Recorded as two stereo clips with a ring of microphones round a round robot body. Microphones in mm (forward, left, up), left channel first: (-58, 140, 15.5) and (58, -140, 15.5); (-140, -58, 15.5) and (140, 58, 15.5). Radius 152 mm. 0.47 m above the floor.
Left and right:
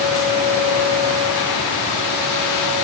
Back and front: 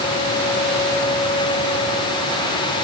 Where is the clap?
No clap in this recording.